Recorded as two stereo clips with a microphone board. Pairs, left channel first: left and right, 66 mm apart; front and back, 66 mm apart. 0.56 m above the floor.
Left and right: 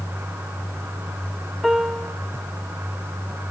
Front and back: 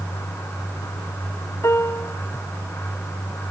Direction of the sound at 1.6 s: 5° right.